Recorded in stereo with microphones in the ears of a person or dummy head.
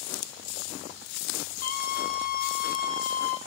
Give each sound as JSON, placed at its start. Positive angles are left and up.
{"t": 1.6, "sound": "a scream", "side_deg": 45, "distance_m": 3.5}